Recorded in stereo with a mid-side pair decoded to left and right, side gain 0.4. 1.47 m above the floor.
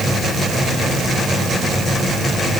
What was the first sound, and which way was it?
Only background noise.